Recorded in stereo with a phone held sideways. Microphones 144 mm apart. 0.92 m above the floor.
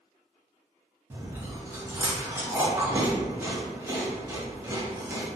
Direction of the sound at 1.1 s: 20° right (ahead or behind).